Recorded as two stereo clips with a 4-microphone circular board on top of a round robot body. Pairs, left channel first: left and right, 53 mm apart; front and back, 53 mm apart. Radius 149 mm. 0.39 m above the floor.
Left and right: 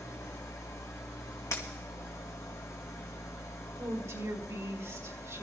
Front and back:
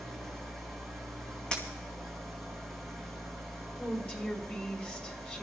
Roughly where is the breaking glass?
Left.